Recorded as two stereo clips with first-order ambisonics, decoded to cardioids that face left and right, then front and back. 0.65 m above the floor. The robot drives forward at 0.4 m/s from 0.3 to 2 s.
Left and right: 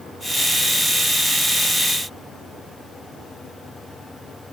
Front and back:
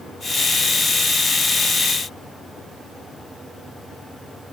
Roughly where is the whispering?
I don't hear whispering.